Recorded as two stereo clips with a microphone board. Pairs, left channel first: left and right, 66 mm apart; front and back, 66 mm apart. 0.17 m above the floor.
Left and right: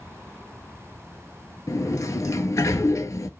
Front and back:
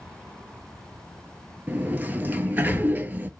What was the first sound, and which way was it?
A sliding door, 120° left.